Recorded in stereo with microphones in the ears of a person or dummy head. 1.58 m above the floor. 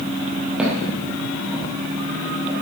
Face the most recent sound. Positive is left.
turn(degrees=0)  # may be behind; listen again after turning